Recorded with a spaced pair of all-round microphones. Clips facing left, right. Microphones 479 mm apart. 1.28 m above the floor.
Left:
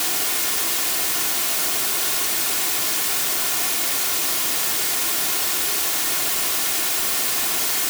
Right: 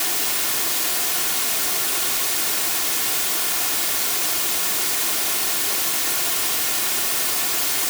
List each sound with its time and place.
Only background noise.